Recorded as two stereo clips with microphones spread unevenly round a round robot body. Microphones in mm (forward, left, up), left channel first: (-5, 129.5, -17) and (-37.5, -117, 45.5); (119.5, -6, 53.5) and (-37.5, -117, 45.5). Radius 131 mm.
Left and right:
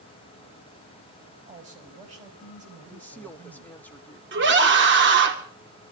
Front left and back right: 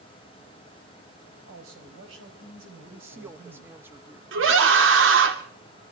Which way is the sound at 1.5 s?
160° right.